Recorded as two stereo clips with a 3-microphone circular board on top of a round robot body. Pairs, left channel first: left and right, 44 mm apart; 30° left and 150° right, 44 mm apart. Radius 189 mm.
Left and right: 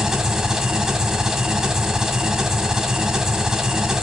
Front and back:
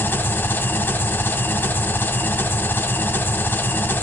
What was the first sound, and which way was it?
An engine running, 15° right.